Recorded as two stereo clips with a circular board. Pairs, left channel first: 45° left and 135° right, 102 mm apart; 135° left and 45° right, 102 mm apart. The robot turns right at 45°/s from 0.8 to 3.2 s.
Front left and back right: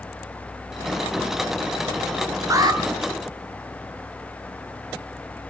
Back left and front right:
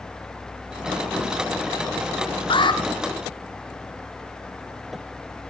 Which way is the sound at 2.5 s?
165° left.